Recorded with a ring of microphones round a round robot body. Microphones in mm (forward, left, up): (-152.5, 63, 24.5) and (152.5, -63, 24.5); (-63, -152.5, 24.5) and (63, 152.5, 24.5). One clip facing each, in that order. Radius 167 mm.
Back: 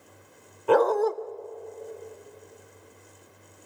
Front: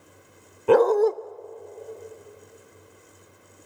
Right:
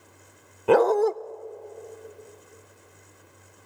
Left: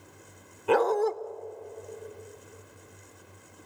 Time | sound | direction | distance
0.7 | a dog barking | 80° right | 0.5 m